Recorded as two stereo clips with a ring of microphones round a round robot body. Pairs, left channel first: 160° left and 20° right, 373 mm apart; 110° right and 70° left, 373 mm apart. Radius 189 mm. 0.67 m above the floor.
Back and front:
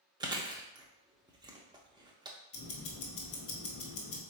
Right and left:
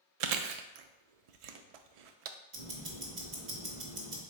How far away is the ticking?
About 1.2 m.